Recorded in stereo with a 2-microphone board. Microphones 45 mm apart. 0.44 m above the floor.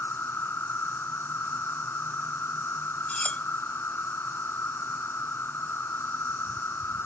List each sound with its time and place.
0.0 s an insect: 65° left (ahead or behind), 1.0 m
3.1 s cutlery clinking: 30° left (ahead or behind), 0.6 m